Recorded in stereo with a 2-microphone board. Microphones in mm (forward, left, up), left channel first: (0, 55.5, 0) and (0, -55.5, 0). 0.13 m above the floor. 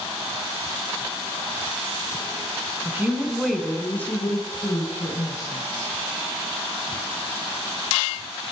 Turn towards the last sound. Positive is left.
turn(degrees=55)  # may be behind; listen again after turning